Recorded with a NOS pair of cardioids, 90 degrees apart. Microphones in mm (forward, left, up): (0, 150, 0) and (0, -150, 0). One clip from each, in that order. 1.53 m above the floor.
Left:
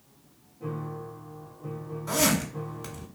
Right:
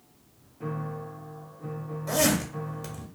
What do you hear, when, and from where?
0.6 s a piano: 65° right, 0.9 m
2.1 s a zipper: 5° right, 1.3 m